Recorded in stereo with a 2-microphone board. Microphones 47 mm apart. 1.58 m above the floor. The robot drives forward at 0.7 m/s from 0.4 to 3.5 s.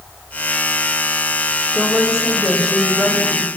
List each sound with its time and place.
1.7 s a woman speaking: 15° right (ahead or behind), 7 m; by 3.5 s 10° right (ahead or behind), 8 m